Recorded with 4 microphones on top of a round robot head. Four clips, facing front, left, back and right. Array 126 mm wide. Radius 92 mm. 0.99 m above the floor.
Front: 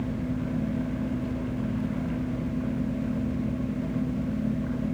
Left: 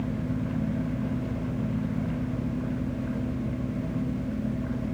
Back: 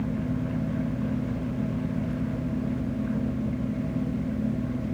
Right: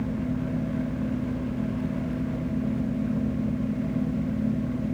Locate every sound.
Only background noise.